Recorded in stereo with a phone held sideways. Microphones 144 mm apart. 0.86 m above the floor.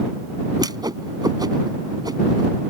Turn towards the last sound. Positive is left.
turn(degrees=-30)  # may be behind; listen again after turning